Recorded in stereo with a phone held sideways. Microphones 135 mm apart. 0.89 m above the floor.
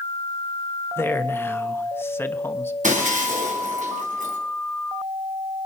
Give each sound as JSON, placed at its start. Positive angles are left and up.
{"t": 1.0, "sound": "a man speaking", "side_deg": 20, "distance_m": 0.9}
{"t": 2.8, "sound": "breaking glass", "side_deg": -75, "distance_m": 3.0}